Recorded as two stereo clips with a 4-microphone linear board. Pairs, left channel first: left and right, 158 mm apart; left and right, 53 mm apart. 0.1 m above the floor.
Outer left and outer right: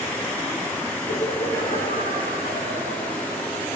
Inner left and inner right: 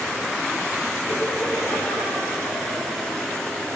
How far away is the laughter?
About 7.5 m.